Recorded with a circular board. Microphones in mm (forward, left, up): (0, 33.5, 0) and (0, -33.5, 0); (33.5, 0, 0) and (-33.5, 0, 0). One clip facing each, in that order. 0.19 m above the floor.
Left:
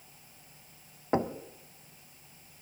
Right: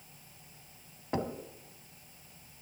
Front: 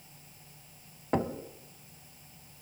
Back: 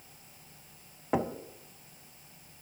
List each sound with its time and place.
1.1 s knocking: 100° left, 0.8 m